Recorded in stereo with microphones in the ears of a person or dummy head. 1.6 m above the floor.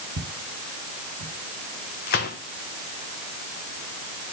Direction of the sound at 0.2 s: 50° right (ahead or behind).